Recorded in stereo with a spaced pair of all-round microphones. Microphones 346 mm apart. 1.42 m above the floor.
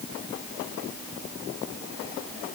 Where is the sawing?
No sawing in this recording.